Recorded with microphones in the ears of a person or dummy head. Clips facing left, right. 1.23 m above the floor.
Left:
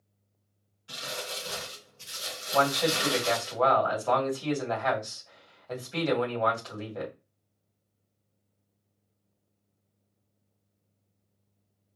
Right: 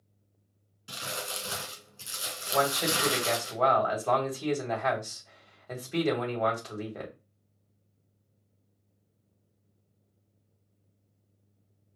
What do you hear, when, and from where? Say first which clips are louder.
0.9 s crumpling: even; 45° right (ahead or behind), 1.9 m
2.5 s a man speaking: left 2 dB; 10° right (ahead or behind), 2.5 m